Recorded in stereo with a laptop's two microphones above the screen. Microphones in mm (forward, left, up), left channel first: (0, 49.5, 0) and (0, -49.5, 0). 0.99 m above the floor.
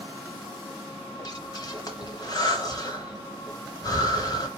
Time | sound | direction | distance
1.2 | breathing | 40° left (ahead or behind) | 1.2 m